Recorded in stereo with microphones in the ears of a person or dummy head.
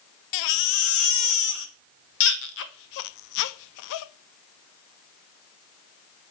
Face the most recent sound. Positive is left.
turn(degrees=60)  # may be behind; listen again after turning